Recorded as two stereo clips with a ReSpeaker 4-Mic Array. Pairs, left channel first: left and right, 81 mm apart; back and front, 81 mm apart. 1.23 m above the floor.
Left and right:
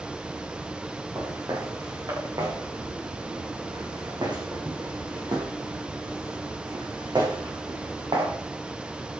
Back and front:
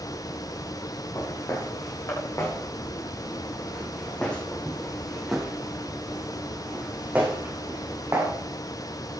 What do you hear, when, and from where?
1.1 s footsteps: 135° right, 6 m; by 8.3 s 60° right, 6 m